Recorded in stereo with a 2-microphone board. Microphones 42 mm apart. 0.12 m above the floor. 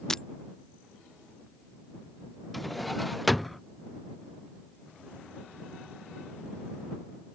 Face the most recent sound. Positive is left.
turn(degrees=0)  # may be behind; listen again after turning